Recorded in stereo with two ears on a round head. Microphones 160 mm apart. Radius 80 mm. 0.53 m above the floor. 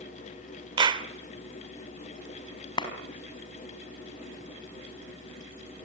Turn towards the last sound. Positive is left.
turn(degrees=25)  # may be behind; listen again after turning